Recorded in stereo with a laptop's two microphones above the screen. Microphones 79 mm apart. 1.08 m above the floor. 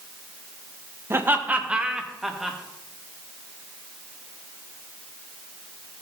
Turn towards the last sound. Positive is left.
turn(degrees=0)  # may be behind; listen again after turning